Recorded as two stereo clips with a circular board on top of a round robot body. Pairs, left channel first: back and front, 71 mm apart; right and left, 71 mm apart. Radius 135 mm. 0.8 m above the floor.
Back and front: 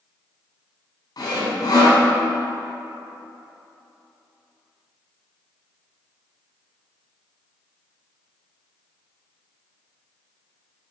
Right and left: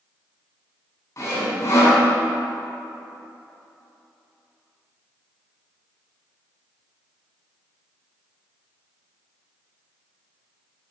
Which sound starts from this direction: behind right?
Sawing, at 1.2 s.